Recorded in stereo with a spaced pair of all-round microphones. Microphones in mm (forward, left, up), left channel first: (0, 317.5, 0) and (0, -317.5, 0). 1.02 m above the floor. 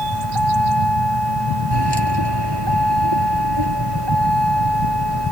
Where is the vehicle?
35° right (ahead or behind).